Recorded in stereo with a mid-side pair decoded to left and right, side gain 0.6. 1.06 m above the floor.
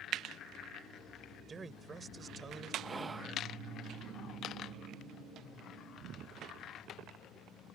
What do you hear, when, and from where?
1.5 s a man speaking: 25° right
2.8 s whispering: 20° right